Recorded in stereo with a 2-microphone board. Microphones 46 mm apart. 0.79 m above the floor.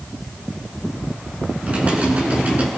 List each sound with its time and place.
1.6 s typing on a keyboard: 30° right (ahead or behind), 7.5 m